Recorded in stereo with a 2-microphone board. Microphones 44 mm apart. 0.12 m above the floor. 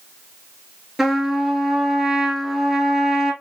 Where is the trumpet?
5° right (ahead or behind), 1.6 m.